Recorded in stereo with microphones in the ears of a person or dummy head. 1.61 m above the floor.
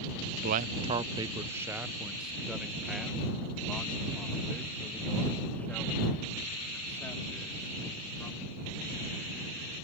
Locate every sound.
0.3 s a man speaking: 55° right (ahead or behind); by 8.9 s 10° left (ahead or behind)